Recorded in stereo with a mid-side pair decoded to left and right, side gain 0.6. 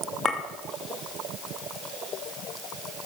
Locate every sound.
0.2 s a clink: 35° left, 2.5 m